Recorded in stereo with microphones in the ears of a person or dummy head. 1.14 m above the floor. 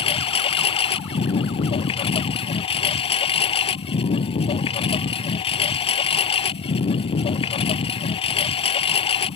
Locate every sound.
0.0 s a lawn mower: 35° left (ahead or behind)